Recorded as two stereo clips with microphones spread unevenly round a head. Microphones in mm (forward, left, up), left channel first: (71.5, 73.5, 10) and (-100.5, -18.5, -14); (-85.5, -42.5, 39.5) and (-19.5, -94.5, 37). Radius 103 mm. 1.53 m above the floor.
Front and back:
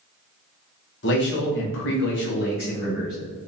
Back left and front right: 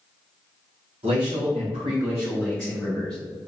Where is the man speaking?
Straight ahead, 1.1 m; by 3.2 s 75° left, 1.3 m.